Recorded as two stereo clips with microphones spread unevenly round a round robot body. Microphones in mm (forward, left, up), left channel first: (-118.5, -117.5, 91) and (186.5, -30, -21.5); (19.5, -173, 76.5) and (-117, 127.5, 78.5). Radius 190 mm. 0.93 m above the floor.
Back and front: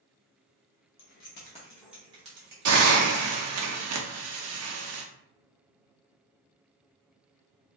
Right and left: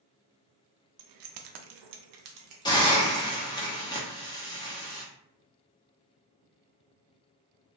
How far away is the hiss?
About 0.6 m.